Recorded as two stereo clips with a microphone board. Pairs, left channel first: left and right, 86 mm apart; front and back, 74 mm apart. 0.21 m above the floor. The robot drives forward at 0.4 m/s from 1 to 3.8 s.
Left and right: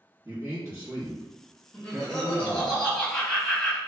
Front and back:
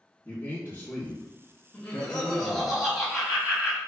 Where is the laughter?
25° left, 1.2 m; by 3.8 s 155° left, 1.2 m.